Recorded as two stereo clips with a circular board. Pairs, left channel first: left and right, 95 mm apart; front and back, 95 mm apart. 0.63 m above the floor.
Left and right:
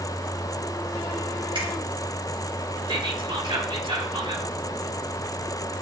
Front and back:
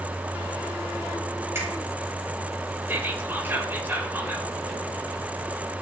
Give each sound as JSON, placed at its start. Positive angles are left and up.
{"t": 1.6, "sound": "a finger snap", "azimuth_deg": -120, "distance_m": 4.0}
{"t": 2.9, "sound": "whispering", "azimuth_deg": -115, "distance_m": 2.5}